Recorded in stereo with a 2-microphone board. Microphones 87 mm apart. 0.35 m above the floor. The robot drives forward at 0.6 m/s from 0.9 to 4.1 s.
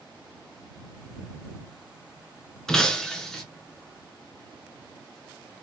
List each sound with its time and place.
2.7 s breaking glass: 5° left (ahead or behind), 1.1 m